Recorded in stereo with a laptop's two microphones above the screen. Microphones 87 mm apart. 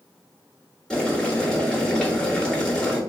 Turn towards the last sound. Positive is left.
turn(degrees=10)  # may be behind; listen again after turning